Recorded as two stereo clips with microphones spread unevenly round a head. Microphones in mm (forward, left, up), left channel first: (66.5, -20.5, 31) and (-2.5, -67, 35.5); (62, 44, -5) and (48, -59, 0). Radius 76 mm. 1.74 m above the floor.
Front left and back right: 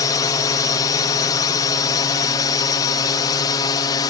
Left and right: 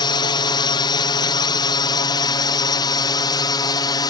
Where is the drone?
65° left; by 4.1 s 55° left.